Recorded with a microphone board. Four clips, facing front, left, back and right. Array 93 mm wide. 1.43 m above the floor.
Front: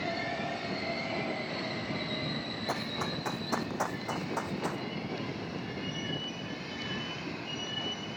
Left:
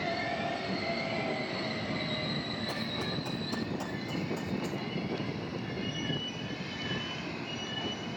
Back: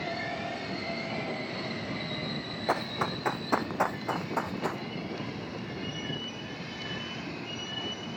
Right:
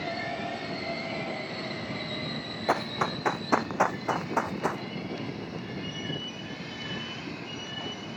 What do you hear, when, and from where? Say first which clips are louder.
2.7 s running footsteps: right 8 dB, back 6 dB; 115° right; by 4.8 s 100° right